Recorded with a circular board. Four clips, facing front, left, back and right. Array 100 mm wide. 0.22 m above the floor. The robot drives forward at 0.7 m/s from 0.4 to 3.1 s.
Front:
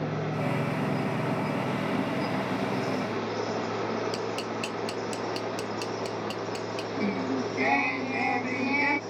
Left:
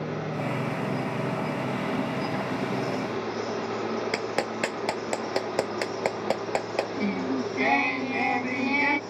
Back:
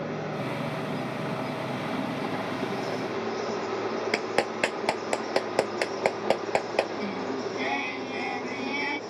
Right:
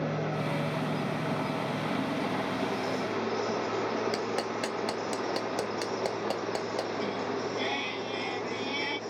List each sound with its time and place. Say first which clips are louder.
4.1 s a clap: left 2 dB, back 4 dB; 155° left
7.0 s singing: left 4 dB, front 2 dB; 65° left